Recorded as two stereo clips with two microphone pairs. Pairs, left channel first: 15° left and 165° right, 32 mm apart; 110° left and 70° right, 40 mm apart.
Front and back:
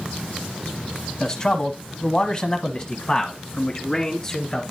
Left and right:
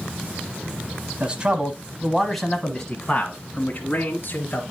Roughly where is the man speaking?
Ahead right.